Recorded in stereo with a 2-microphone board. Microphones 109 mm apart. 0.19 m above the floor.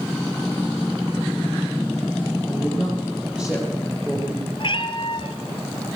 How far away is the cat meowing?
About 2 m.